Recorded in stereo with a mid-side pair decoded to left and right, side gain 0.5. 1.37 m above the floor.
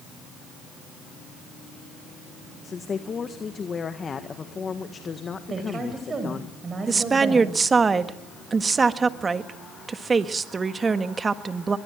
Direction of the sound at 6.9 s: 25° right.